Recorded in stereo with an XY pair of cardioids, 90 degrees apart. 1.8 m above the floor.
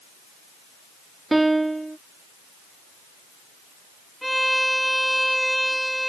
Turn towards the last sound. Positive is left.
turn(degrees=0)